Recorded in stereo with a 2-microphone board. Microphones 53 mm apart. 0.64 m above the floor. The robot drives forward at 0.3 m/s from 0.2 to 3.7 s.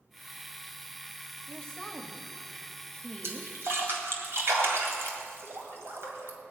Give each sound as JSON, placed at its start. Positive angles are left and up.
{"t": 1.5, "sound": "a woman speaking", "side_deg": 15, "distance_m": 1.3}
{"t": 3.2, "sound": "a splash", "side_deg": -65, "distance_m": 1.9}